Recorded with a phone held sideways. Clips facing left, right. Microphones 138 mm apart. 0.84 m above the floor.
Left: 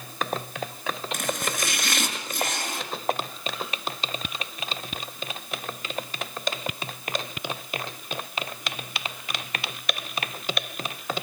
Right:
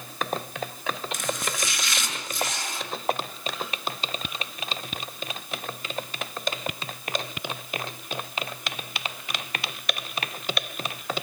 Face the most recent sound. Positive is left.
turn(degrees=55)  # may be behind; listen again after turning